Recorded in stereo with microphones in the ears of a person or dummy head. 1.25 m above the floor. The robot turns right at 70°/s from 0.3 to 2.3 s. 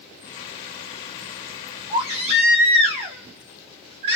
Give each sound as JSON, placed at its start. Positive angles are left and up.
{"t": 1.9, "sound": "a baby crying", "side_deg": -15, "distance_m": 0.6}